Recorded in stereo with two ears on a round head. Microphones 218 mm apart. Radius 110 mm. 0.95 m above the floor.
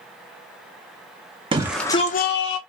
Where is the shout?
20° right (ahead or behind), 0.8 m; by 2.6 s 55° left (ahead or behind), 1.2 m.